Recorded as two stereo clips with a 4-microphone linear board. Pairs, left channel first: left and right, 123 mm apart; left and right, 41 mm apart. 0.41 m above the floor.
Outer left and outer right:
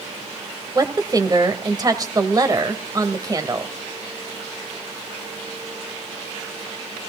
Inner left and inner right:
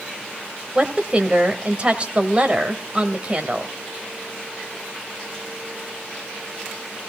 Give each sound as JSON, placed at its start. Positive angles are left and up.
{"t": 0.8, "sound": "a woman speaking", "side_deg": -30, "distance_m": 1.7}